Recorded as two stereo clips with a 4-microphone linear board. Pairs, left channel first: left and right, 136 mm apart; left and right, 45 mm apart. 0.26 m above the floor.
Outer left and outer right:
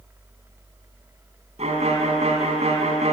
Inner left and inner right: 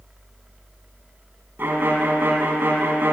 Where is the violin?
55° right (ahead or behind), 2.5 m.